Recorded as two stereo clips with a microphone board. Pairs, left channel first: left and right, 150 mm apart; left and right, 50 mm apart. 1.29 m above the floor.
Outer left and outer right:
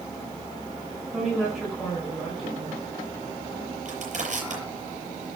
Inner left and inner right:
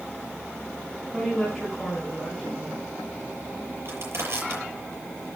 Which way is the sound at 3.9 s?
55° right (ahead or behind).